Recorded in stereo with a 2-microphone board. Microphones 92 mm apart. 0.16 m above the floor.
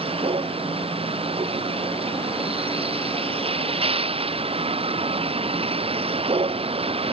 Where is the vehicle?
80° right; by 7.1 s 85° right.